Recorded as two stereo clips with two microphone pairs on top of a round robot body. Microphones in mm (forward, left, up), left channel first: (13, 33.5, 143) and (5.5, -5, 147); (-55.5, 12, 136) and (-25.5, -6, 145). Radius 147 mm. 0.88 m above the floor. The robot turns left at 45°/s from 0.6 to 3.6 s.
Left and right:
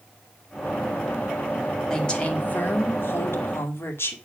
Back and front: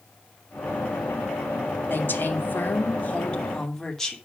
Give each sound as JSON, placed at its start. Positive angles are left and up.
{"t": 1.9, "sound": "a woman speaking", "azimuth_deg": 155, "distance_m": 2.5}